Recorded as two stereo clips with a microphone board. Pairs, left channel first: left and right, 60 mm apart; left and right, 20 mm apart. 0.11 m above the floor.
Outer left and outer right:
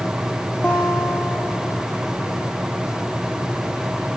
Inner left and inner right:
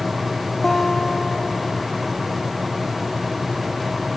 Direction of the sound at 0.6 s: 15° left (ahead or behind).